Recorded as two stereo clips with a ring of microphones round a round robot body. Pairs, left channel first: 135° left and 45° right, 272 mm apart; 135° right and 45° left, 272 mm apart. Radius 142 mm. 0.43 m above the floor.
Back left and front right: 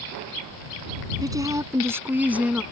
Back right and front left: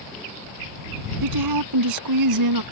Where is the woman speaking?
30° left; by 2.6 s 40° left.